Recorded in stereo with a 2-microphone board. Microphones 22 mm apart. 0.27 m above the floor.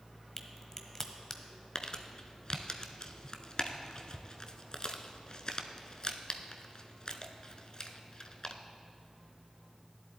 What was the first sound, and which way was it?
A crack, 25° left (ahead or behind).